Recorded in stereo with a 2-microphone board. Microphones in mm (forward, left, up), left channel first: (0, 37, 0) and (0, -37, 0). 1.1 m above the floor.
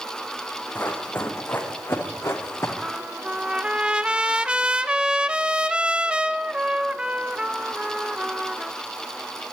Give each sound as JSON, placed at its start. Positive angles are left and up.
{"t": 0.8, "sound": "running footsteps", "side_deg": 20, "distance_m": 5.5}
{"t": 2.8, "sound": "a trumpet", "side_deg": -15, "distance_m": 1.0}